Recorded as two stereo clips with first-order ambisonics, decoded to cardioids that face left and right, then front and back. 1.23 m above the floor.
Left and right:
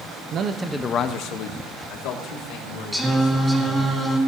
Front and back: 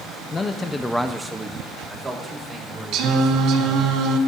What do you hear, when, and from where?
0.3 s a man speaking: 65° right, 0.7 m; by 3.9 s 100° left, 4 m
2.9 s singing: 175° right, 1.6 m